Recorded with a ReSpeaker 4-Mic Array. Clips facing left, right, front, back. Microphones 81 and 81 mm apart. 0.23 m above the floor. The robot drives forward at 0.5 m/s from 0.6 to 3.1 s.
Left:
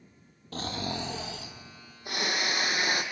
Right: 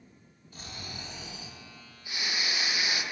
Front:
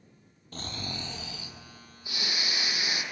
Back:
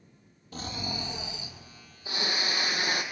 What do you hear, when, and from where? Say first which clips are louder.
0.5 s snoring: left 11 dB, back 3 dB; 95° left, 1.4 m; by 3.0 s 135° left, 1.9 m